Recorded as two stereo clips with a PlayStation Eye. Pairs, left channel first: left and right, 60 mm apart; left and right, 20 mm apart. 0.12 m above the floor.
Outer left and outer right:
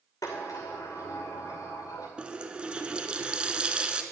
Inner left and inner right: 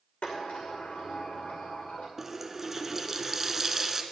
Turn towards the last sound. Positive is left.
turn(degrees=-20)  # may be behind; listen again after turning